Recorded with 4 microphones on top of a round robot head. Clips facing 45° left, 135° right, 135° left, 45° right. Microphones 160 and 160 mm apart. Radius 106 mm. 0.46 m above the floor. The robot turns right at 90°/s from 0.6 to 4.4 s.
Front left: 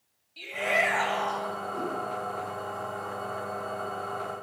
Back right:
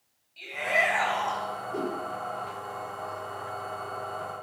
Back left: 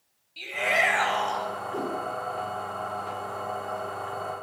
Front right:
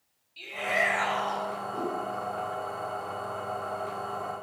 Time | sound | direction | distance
0.4 | a shout | 105° left | 4 m
1.7 | a whoosh | 165° right | 5.5 m